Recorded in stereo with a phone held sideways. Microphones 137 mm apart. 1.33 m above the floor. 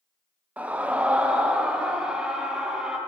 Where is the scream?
10° right (ahead or behind), 0.7 m; by 3.0 s 5° right (ahead or behind), 1.9 m.